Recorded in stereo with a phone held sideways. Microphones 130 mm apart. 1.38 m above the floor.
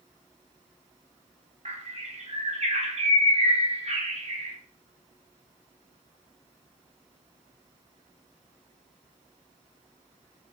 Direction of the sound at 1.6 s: 55° right (ahead or behind).